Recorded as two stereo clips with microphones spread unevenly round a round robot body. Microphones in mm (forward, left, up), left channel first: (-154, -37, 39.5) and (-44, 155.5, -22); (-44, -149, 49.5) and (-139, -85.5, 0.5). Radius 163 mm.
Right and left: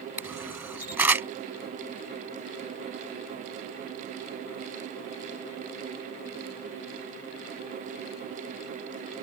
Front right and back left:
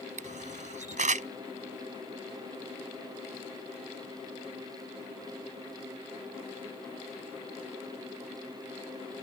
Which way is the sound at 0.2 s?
145° left.